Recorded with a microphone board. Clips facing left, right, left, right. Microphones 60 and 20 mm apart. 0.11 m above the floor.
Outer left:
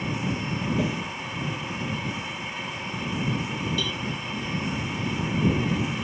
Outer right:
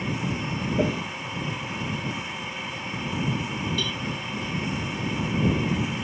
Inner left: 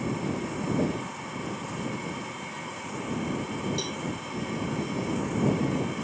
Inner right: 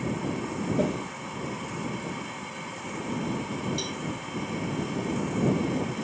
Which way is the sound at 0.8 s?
35° right (ahead or behind).